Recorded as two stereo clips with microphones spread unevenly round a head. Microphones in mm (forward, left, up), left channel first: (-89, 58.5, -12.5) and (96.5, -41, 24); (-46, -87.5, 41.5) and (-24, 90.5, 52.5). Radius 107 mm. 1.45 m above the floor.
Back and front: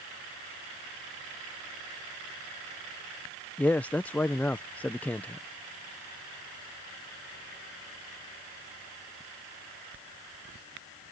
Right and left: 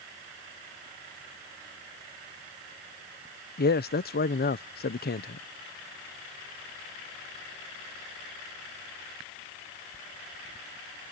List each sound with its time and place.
3.6 s a man speaking: 125° right